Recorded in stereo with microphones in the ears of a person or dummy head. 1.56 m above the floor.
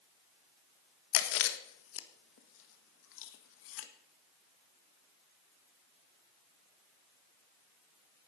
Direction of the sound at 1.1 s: 75° left (ahead or behind).